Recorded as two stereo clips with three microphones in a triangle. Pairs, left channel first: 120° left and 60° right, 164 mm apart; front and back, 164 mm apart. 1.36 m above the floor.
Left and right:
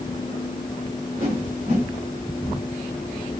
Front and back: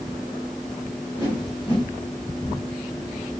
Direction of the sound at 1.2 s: 55° right.